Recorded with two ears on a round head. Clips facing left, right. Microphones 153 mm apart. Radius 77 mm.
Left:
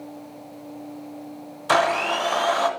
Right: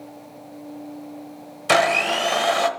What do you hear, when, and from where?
1.7 s a blender: 25° right (ahead or behind), 0.7 m